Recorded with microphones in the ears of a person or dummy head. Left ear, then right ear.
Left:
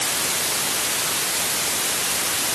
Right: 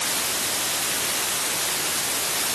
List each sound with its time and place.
Only background noise.